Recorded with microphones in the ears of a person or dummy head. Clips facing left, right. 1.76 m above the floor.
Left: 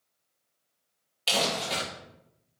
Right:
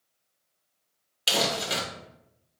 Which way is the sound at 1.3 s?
15° right (ahead or behind).